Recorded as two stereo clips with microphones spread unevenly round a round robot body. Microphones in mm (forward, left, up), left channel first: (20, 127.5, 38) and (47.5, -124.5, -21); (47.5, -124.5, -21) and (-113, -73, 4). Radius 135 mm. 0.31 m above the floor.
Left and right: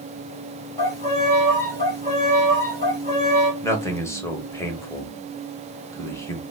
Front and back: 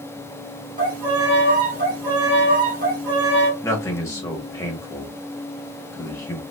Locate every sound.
0.8 s a violin: straight behind, 1.9 m
3.6 s a man speaking: straight ahead, 0.9 m